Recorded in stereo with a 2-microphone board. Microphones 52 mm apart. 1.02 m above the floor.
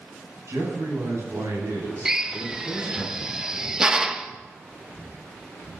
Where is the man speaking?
75° right (ahead or behind), 9.5 m.